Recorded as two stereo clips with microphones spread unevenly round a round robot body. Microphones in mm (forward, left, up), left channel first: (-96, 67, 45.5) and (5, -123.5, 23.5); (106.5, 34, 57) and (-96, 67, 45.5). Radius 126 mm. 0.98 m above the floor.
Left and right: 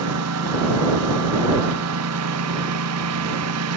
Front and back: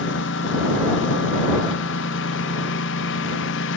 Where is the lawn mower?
50° right.